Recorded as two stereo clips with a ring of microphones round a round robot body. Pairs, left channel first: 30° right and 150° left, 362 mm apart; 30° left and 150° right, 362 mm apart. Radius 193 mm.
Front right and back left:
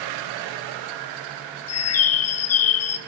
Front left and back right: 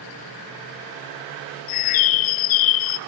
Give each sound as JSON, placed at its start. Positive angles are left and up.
{"t": 1.7, "sound": "a bird", "azimuth_deg": 15, "distance_m": 0.9}